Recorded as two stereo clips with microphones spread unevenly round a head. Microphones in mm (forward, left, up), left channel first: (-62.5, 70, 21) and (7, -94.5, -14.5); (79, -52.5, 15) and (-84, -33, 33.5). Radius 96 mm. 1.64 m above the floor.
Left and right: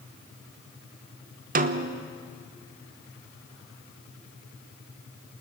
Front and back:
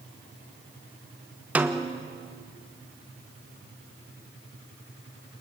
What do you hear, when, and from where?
1.6 s a snare drum: 110° right, 1.0 m